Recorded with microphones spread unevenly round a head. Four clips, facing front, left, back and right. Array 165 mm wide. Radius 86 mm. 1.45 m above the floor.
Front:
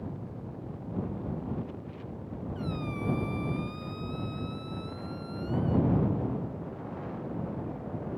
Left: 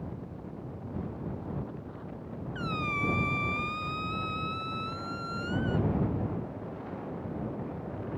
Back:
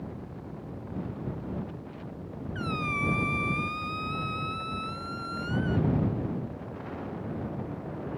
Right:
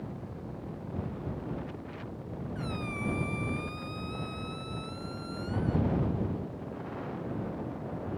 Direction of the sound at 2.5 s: 150° left.